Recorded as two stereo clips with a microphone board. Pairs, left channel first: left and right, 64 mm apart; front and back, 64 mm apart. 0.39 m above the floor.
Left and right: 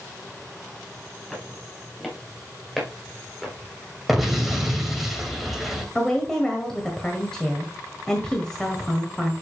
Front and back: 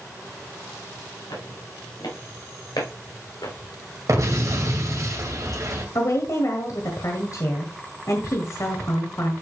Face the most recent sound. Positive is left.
turn(degrees=10)